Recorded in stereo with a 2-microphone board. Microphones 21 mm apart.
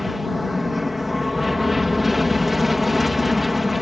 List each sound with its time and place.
0.0 s an aircraft: 5° right (ahead or behind)